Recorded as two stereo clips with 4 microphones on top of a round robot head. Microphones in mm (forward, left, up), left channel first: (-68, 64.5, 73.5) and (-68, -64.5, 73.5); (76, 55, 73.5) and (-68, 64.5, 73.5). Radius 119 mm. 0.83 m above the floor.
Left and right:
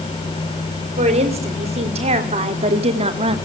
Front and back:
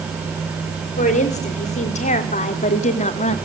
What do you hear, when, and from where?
1.0 s a woman speaking: 45° right, 3.5 m